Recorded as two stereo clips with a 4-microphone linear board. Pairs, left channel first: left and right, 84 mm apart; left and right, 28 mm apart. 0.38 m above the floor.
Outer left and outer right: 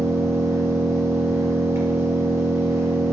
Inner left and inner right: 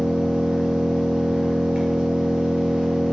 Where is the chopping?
I don't hear chopping.